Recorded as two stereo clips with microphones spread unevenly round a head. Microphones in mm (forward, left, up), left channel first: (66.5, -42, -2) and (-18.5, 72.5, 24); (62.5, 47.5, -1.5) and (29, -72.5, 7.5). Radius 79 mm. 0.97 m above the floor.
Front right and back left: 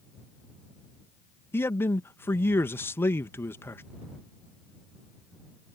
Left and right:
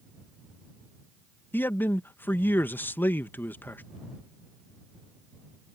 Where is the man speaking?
10° left.